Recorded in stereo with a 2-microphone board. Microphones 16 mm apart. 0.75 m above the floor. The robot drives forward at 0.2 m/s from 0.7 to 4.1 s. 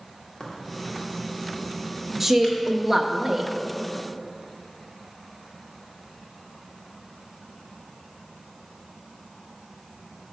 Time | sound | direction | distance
0.4 | a crack | 30° left (ahead or behind) | 1.7 m
2.2 | a woman speaking | 15° right (ahead or behind) | 0.6 m